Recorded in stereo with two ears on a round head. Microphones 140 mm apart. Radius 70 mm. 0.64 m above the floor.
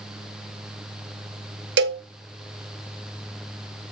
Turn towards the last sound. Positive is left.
turn(degrees=-80)